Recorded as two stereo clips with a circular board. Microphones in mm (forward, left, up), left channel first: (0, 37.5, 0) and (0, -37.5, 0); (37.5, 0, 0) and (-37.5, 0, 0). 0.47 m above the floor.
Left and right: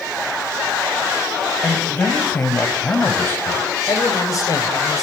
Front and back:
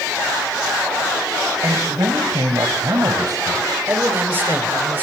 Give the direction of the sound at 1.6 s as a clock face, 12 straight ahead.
7 o'clock.